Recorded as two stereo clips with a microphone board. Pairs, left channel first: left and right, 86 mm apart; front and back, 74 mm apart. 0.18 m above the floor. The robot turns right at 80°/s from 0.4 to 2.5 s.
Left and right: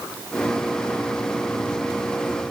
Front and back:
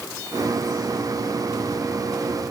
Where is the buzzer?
No buzzer in this recording.